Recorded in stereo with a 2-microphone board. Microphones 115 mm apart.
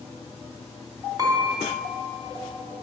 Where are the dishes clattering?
35° right (ahead or behind), 1.0 m.